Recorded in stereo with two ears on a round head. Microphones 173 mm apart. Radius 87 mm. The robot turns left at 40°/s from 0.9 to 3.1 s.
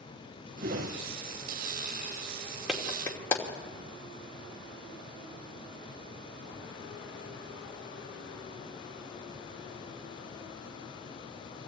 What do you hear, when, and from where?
0.6 s a whoosh: 50° right (ahead or behind), 3 m; by 1.0 s 55° right (ahead or behind), 3 m
2.7 s a clap: 5° right (ahead or behind), 2.5 m; by 3.4 s 15° left (ahead or behind), 2.5 m